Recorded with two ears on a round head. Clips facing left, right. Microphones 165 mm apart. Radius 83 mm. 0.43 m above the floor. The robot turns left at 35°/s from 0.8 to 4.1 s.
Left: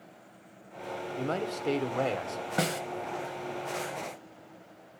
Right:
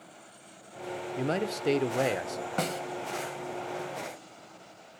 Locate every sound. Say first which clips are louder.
1.2 s a man speaking: right 2 dB; 25° right (ahead or behind), 0.8 m; by 2.5 s 20° right (ahead or behind), 0.8 m
2.6 s a snare drum: left 2 dB; 5° left (ahead or behind), 0.5 m; by 2.8 s 15° left (ahead or behind), 0.5 m